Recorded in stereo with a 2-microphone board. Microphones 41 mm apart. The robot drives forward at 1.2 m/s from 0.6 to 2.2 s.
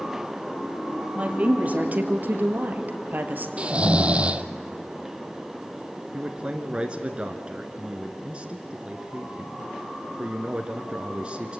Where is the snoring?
30° right (ahead or behind), 0.6 m.